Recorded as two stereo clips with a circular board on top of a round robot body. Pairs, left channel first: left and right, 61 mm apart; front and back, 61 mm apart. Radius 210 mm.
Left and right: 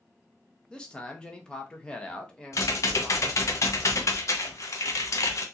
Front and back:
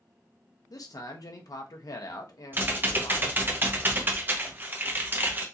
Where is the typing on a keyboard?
125° left, 0.9 m.